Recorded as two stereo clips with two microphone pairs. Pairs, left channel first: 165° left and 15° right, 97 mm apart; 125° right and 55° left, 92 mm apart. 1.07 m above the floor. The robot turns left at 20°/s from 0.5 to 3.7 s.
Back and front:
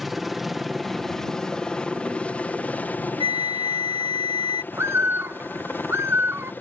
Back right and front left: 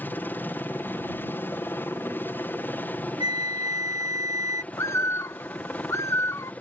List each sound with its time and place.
0.0 s a helicopter: 105° right; by 6.6 s 165° right
3.2 s a flute: 10° left; by 4.6 s straight ahead
4.7 s a bird: 75° right